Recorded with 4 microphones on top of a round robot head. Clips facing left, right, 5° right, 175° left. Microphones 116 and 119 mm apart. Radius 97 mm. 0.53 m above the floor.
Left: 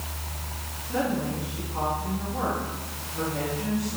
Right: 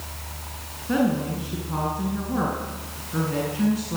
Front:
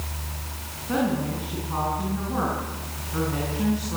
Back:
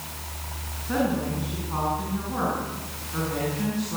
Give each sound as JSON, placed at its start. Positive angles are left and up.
{"t": 0.9, "sound": "a woman speaking", "azimuth_deg": -85, "distance_m": 7.5}